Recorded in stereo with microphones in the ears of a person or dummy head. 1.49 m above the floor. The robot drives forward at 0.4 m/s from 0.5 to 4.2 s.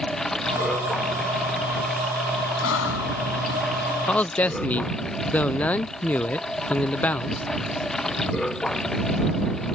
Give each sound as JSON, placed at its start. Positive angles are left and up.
{"t": 0.0, "sound": "running water", "side_deg": 5}
{"t": 2.6, "sound": "breathing", "side_deg": 80}
{"t": 4.1, "sound": "a man speaking", "side_deg": 10}